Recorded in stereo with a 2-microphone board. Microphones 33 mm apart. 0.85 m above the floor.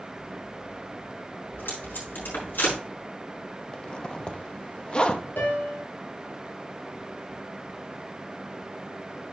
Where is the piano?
75° left (ahead or behind), 2.5 m.